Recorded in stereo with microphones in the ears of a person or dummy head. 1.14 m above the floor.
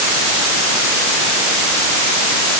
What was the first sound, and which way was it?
Only background noise.